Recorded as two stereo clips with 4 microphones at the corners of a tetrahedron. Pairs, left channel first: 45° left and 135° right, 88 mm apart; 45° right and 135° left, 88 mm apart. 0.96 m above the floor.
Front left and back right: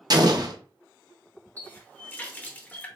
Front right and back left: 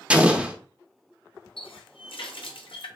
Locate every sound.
0.1 s an explosion: 150° right, 0.5 m
1.6 s a running tap: 25° right, 0.6 m